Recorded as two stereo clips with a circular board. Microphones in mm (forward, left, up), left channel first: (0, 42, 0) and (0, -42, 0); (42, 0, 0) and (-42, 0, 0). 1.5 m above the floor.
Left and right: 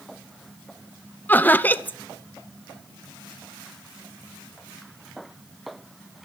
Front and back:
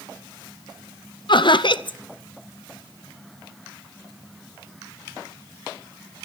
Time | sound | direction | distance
1.3 | laughter | 20° left | 0.7 m